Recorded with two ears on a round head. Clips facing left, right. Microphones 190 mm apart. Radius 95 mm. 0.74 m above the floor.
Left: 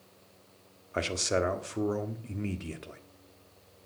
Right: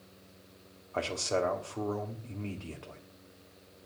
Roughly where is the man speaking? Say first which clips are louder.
Left 2 dB; left.